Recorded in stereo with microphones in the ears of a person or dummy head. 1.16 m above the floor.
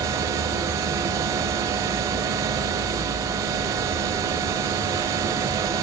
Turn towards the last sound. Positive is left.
turn(degrees=-20)  # may be behind; listen again after turning